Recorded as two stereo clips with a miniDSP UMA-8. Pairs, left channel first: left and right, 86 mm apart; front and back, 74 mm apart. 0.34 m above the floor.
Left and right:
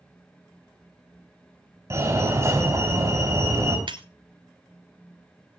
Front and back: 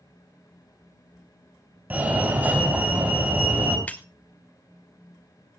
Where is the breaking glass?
70° right, 0.9 m.